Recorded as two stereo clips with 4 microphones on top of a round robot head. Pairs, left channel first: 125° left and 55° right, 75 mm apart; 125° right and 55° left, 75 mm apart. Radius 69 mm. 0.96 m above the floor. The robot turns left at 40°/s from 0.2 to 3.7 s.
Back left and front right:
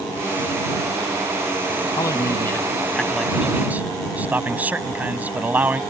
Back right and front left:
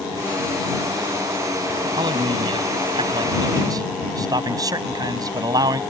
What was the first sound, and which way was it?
A man speaking, 85° left.